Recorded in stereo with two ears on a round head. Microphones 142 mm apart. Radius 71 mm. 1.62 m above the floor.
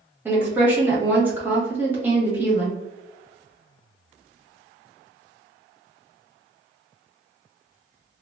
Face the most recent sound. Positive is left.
turn(degrees=-15)  # may be behind; listen again after turning